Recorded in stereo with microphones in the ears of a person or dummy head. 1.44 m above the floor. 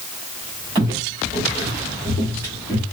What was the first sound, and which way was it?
Footsteps, 20° right (ahead or behind).